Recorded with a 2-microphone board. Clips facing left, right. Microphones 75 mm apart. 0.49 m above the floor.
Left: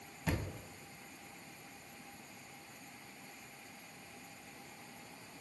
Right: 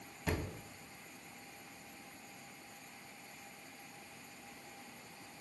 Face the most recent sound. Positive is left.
turn(degrees=-5)  # may be behind; listen again after turning